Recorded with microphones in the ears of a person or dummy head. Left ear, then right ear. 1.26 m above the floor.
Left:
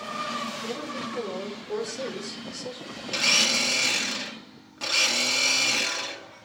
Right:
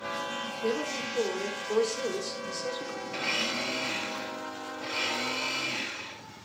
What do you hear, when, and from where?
0.6 s a woman speaking: 45° right (ahead or behind), 4 m
3.1 s a blender: 80° left, 1.9 m